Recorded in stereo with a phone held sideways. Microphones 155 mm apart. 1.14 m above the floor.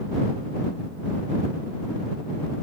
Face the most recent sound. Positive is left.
No sound to turn to.